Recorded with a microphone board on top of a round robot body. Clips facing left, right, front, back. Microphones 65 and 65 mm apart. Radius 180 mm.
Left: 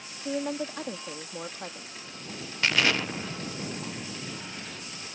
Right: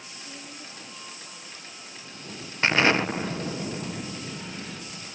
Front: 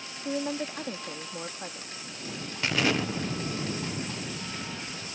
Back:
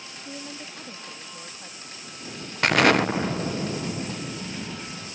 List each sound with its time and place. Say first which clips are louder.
0.2 s a woman speaking: left 16 dB, front 9 dB; 65° left
2.6 s an explosion: right 4 dB, back 8 dB; 150° right